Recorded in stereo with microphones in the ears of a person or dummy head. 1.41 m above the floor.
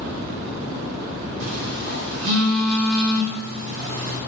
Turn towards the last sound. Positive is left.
turn(degrees=-60)  # may be behind; listen again after turning